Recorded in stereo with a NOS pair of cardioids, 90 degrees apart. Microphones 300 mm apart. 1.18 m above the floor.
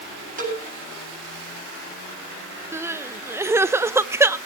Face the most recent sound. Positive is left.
turn(degrees=-10)